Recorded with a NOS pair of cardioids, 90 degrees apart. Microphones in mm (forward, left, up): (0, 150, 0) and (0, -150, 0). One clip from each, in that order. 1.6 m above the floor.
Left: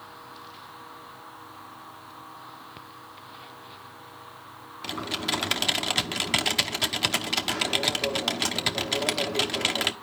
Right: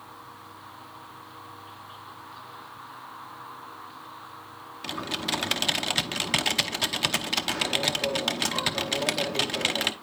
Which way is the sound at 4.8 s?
Straight ahead.